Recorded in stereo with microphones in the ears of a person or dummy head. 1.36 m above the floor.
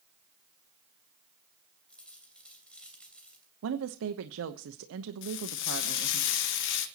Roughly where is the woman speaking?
Right.